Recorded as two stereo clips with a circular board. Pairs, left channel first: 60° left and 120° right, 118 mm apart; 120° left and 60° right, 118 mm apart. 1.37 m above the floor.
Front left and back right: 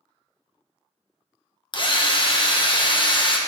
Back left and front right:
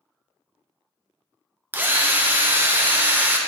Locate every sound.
1.7 s a drill: 15° left, 0.8 m